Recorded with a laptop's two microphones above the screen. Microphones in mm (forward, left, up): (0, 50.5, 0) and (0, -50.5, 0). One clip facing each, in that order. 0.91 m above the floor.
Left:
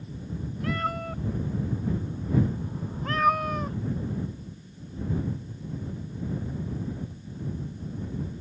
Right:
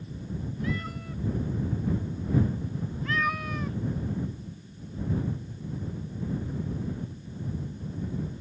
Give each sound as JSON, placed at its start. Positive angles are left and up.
{"t": 0.6, "sound": "a cat meowing", "side_deg": 60}